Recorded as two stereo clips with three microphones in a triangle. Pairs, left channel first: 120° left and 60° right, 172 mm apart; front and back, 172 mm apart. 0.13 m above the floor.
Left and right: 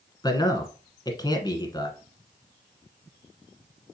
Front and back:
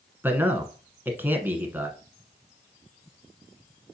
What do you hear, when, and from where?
0.2 s a man speaking: 120° left, 1.2 m